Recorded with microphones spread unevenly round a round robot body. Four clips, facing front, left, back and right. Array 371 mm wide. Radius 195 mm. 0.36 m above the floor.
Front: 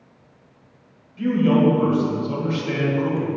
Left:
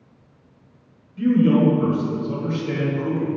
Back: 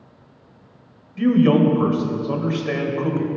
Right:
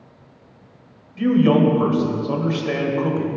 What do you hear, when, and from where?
1.2 s a man speaking: 175° right, 1.6 m; by 3.3 s 115° right, 1.8 m